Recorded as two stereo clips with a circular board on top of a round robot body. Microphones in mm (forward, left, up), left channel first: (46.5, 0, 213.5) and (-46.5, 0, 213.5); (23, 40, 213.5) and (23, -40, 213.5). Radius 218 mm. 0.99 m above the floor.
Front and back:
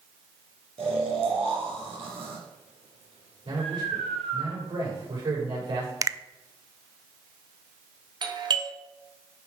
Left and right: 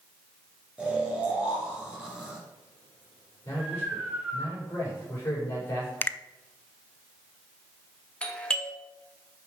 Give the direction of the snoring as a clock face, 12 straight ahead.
6 o'clock.